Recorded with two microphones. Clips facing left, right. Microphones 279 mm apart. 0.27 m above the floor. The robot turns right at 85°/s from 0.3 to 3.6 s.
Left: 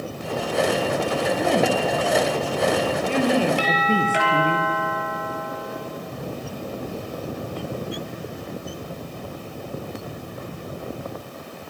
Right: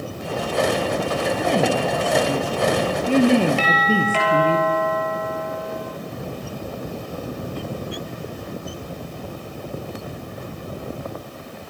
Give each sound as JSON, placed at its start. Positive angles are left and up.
{"t": 1.4, "sound": "a woman speaking", "azimuth_deg": 165, "distance_m": 5.0}
{"t": 3.6, "sound": "a doorbell", "side_deg": 15, "distance_m": 9.0}